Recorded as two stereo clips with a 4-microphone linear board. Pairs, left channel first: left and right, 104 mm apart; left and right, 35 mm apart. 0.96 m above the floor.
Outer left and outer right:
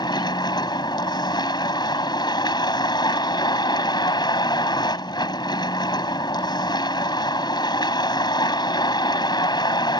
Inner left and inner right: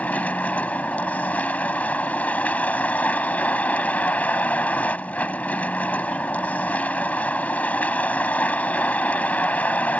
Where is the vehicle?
45° left (ahead or behind).